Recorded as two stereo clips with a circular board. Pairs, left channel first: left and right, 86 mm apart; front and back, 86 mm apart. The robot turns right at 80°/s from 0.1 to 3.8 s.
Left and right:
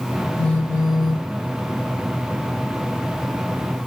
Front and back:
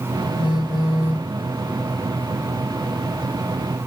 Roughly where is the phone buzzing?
Ahead.